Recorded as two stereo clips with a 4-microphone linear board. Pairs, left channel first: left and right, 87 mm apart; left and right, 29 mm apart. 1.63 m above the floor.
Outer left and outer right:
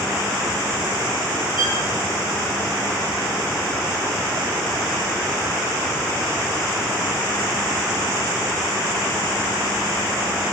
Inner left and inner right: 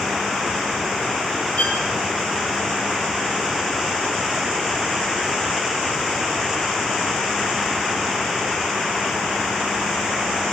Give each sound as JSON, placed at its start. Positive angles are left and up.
{"t": 1.6, "sound": "a violin", "side_deg": 75, "distance_m": 7.5}